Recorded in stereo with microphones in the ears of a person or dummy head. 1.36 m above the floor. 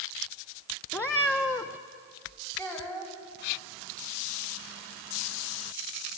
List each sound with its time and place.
0.9 s a cat meowing: 10° left (ahead or behind), 0.5 m
2.6 s a child speaking: 15° left (ahead or behind), 4.5 m